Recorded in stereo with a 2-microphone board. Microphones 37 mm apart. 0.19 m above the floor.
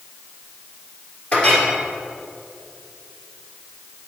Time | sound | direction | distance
1.3 | a clink | 40° left (ahead or behind) | 2 m